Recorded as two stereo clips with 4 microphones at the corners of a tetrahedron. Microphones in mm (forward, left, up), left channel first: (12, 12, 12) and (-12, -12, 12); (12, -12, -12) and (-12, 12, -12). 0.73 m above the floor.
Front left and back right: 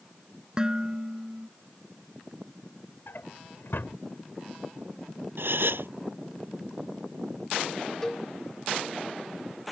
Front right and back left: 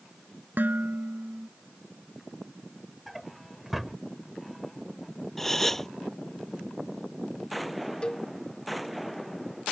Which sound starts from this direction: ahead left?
A drawer, at 3.1 s.